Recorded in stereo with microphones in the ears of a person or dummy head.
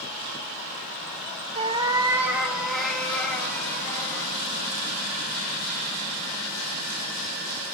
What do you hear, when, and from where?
1.6 s a cat meowing: 35° right (ahead or behind), 1.3 m; by 4.3 s 20° left (ahead or behind), 3 m